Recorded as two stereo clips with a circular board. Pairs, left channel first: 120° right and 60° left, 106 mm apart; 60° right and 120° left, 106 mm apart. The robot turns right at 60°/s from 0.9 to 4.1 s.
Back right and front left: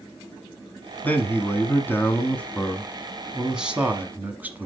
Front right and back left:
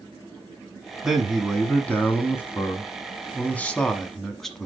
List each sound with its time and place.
1.0 s a man speaking: 160° right, 1.1 m; by 4.7 s 20° left, 1.1 m